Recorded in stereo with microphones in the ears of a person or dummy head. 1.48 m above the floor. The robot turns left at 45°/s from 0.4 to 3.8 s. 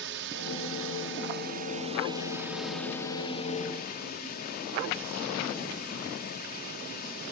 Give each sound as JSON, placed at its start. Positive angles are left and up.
{"t": 0.0, "sound": "a drone", "azimuth_deg": -75}